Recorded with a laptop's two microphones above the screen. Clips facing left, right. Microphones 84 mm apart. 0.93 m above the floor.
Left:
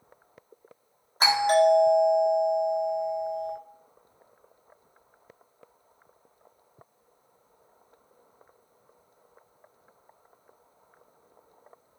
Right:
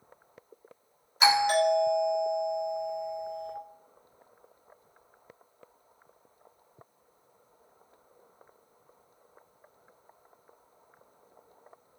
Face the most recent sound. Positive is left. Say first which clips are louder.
# left 3 dB
turn(degrees=35)  # may be behind; listen again after turning